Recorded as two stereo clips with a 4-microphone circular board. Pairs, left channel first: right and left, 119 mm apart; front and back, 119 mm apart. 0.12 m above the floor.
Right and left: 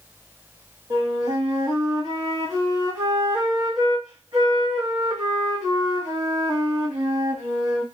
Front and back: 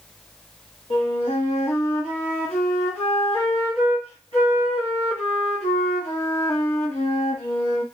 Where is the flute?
30° left, 1.5 m.